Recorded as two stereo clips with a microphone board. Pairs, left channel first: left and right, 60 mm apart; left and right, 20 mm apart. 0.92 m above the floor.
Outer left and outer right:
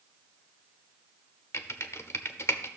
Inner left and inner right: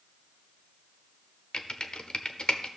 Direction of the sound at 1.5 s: 50° left (ahead or behind).